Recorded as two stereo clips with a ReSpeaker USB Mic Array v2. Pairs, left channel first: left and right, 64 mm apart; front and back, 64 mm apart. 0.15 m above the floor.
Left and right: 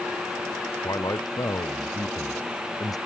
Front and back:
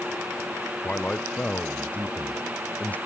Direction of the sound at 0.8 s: 65° left.